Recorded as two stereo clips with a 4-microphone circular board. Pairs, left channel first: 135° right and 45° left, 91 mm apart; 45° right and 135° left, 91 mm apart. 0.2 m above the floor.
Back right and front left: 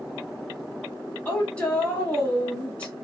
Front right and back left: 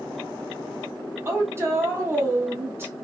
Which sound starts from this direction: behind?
A woman speaking, at 1.2 s.